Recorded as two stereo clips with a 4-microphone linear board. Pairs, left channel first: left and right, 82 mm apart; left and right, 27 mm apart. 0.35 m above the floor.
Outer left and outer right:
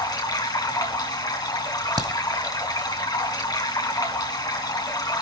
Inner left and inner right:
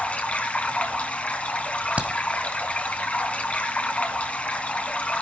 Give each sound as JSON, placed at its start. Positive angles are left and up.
{"t": 0.0, "sound": "running water", "side_deg": 55, "distance_m": 2.5}
{"t": 2.0, "sound": "a crack", "side_deg": -55, "distance_m": 1.5}